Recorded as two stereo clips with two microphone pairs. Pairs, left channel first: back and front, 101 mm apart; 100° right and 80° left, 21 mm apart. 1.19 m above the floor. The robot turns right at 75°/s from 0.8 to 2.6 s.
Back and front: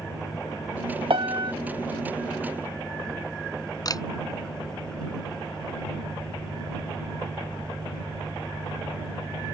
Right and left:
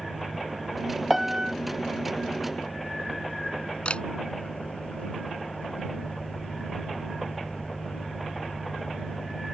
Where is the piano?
5° left; by 1.5 s 35° left.